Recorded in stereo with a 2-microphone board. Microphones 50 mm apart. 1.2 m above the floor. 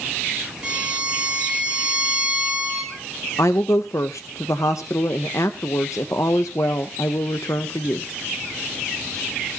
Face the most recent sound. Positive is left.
turn(degrees=80)